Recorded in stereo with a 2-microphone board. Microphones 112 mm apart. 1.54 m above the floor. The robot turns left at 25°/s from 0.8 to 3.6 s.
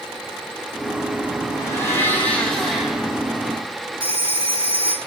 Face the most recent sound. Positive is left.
turn(degrees=-45)  # may be behind; listen again after turning